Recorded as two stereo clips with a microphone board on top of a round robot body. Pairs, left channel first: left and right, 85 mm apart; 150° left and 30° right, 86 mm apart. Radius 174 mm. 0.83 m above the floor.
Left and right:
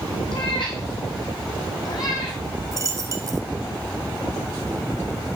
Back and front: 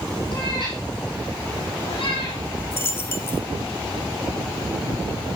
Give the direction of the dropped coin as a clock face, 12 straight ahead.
5 o'clock.